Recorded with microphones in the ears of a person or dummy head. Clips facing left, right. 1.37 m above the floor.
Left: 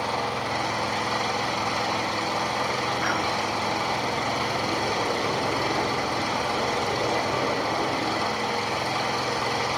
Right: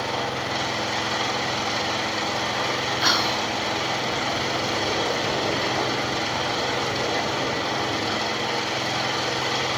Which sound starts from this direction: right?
Whispering, at 3.0 s.